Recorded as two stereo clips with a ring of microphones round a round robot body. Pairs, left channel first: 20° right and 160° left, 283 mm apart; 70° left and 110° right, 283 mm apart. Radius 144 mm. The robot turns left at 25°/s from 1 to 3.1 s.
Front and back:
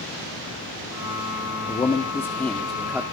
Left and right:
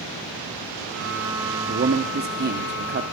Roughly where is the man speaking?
Right.